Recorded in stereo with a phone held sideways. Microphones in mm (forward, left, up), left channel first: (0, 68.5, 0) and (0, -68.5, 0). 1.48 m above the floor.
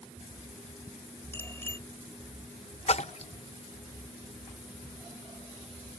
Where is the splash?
50° left (ahead or behind).